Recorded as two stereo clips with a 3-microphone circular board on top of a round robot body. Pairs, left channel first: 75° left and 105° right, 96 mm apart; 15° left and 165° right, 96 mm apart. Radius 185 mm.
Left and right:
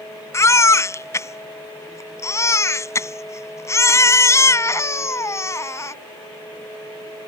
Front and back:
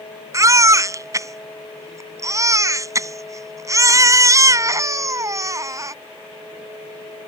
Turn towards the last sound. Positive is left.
turn(degrees=140)